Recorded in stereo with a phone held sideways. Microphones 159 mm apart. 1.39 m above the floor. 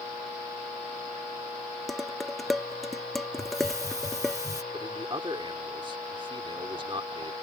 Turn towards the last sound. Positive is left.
turn(degrees=-30)  # may be behind; listen again after turning